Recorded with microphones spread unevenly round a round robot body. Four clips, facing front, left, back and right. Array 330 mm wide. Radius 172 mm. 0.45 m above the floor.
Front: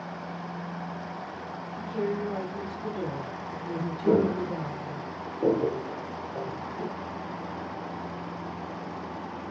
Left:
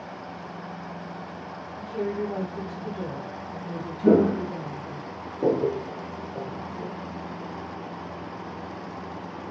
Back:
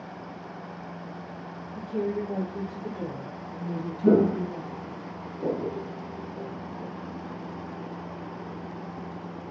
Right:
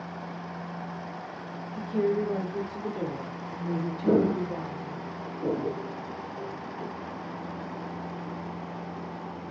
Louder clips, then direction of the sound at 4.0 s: Left 5 dB, back 3 dB; 120° left.